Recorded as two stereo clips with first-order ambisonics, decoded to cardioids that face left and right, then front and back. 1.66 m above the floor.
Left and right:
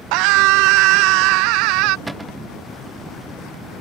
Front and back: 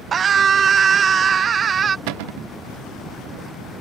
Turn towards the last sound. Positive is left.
turn(degrees=-175)